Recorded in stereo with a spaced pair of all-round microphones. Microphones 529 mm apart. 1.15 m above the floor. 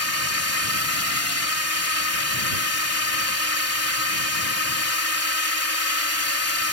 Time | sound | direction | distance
0.0 | a drone | 30° left (ahead or behind) | ?